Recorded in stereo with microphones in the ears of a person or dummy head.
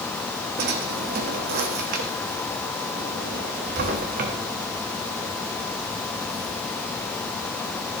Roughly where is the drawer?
Right.